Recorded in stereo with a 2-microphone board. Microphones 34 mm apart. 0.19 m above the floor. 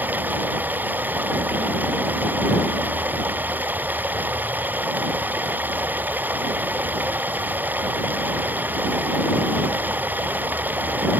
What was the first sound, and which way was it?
Running water, 60° right (ahead or behind).